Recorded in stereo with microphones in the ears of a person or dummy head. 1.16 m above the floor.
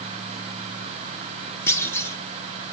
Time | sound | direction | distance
1.7 | a clunk | 15° left (ahead or behind) | 1.3 m